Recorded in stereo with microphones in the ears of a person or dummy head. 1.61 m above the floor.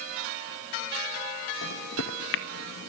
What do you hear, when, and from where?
1.6 s a microwave: 70° left (ahead or behind), 1.9 m